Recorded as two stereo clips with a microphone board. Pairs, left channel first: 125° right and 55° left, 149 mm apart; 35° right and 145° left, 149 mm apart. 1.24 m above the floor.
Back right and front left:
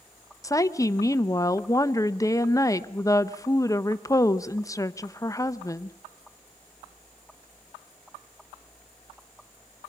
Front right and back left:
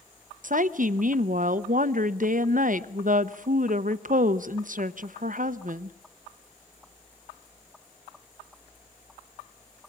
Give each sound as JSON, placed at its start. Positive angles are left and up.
{"t": 0.4, "sound": "a woman speaking", "azimuth_deg": 170, "distance_m": 0.8}